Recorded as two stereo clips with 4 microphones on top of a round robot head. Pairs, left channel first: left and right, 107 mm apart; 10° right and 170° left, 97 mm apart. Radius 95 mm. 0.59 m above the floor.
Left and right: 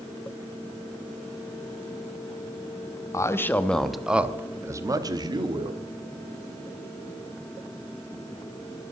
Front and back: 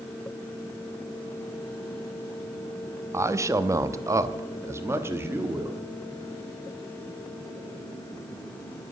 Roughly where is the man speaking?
Behind left.